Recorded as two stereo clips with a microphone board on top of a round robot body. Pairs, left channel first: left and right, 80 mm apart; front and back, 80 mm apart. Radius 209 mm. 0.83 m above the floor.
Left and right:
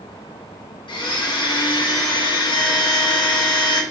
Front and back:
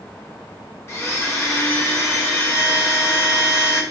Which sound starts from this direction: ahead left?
A blender, at 0.9 s.